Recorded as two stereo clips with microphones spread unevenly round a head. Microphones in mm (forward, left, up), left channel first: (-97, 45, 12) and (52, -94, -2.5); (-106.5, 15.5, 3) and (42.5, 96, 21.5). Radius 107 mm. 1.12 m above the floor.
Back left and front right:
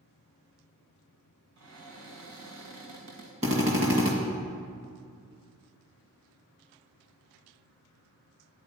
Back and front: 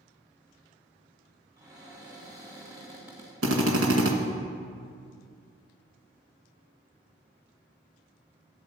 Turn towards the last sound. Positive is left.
turn(degrees=20)